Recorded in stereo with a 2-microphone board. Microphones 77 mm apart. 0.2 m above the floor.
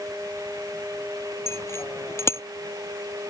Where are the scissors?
I don't hear scissors.